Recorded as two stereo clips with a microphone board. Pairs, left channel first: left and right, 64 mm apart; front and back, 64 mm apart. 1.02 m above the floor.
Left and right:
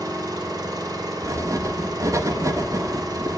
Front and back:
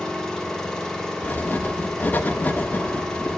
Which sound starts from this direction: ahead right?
Writing, at 1.2 s.